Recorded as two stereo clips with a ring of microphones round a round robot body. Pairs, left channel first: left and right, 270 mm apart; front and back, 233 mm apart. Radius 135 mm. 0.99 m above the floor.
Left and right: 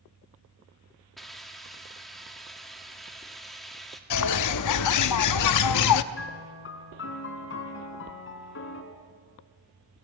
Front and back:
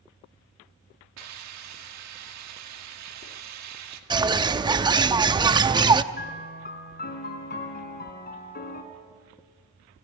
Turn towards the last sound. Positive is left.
turn(degrees=45)